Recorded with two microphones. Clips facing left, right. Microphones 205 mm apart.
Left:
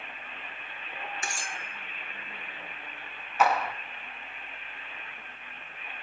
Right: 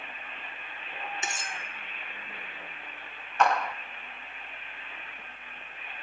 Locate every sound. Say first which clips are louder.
1.2 s cutlery clinking: right 1 dB; 20° right (ahead or behind), 0.6 m
3.4 s a clap: even; 5° left (ahead or behind), 0.5 m